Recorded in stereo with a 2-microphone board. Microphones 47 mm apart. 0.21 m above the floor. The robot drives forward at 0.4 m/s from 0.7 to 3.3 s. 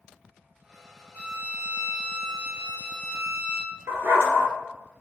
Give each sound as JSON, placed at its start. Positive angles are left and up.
{"t": 1.1, "sound": "a violin", "side_deg": -45, "distance_m": 1.5}
{"t": 3.9, "sound": "a dog barking", "side_deg": -70, "distance_m": 1.3}